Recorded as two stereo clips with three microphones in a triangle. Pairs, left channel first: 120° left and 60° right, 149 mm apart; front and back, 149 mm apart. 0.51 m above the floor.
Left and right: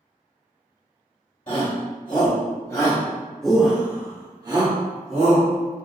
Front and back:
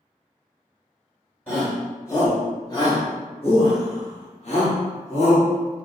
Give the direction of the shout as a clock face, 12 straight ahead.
9 o'clock.